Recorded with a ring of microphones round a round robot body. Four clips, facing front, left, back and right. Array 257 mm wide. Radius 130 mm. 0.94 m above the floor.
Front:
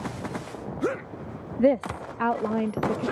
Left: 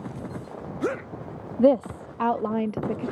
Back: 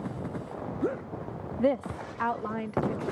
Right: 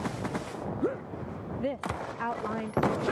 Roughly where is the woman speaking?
Ahead left.